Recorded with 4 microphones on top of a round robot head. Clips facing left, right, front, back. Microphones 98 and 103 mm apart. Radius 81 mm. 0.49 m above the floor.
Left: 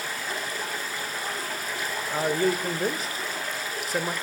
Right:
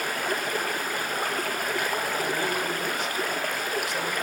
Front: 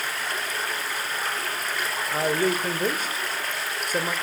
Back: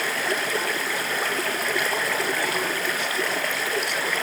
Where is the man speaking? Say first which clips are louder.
Left 3 dB, front 2 dB; 45° left, 2.5 m.